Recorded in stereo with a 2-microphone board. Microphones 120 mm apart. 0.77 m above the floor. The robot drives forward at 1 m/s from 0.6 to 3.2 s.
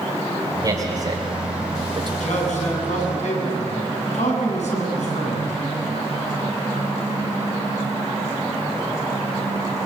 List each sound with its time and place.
0.6 s a man speaking: 35° right (ahead or behind), 3.5 m; by 2.1 s 55° right (ahead or behind), 2.5 m
2.2 s a man speaking: 80° left, 8 m; by 5.5 s 75° left (ahead or behind), 8 m